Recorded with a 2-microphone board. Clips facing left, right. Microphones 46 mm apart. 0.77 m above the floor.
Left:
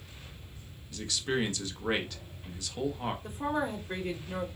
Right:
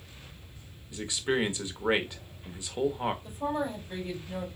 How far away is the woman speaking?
About 2 m.